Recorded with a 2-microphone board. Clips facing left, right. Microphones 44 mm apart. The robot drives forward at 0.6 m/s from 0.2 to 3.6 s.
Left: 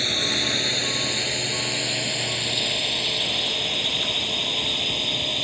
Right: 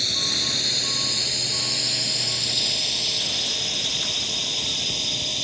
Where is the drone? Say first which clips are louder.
Left 3 dB; 30° left (ahead or behind); by 5.5 s 20° left (ahead or behind).